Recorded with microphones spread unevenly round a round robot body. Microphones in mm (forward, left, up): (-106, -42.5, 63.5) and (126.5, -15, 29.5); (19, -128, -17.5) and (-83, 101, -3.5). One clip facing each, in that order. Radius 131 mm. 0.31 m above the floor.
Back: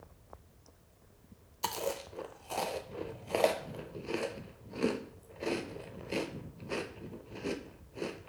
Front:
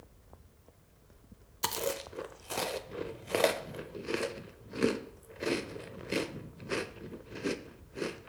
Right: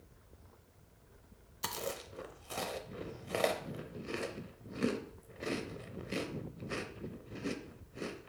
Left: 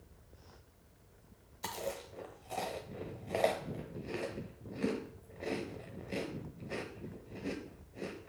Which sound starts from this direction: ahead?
Chewing, at 1.6 s.